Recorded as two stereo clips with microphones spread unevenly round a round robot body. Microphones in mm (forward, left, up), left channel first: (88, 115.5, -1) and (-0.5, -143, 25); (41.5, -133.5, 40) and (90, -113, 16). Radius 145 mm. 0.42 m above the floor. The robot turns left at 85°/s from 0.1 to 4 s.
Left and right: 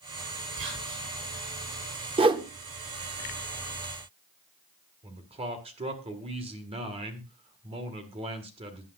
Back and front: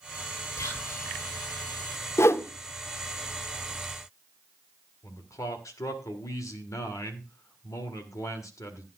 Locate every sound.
0.6 s whispering: 155° right, 9 m; by 1.1 s 160° left, 9 m
2.2 s a whoosh: 155° right, 0.8 m; by 2.5 s straight behind, 0.8 m
5.0 s a man speaking: 175° right, 1.5 m